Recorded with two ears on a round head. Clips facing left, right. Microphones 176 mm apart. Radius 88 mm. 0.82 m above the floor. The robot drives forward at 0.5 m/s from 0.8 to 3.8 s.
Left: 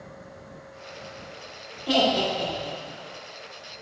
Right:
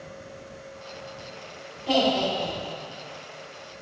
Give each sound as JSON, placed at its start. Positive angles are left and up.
{"t": 1.9, "sound": "laughter", "side_deg": 10, "distance_m": 1.7}